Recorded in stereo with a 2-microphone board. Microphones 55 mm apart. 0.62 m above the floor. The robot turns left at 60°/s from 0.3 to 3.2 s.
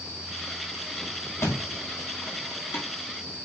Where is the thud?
50° left (ahead or behind), 2 m; by 2.9 s 40° left (ahead or behind), 2 m.